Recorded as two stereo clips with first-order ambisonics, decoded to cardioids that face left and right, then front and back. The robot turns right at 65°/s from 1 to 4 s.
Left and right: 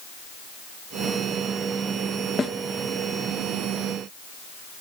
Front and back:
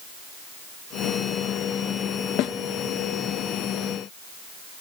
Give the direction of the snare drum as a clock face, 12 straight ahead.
11 o'clock.